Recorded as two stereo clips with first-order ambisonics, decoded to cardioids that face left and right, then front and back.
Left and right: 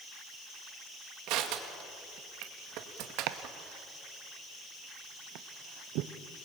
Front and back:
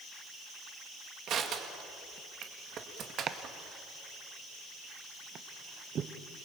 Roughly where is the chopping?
Behind right.